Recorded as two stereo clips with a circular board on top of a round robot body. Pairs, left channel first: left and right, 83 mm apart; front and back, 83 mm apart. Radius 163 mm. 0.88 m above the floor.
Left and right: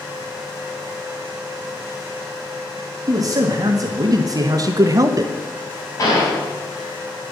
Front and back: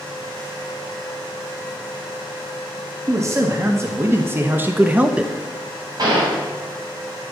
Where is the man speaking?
130° right, 1.9 m; by 5.3 s 105° right, 1.0 m.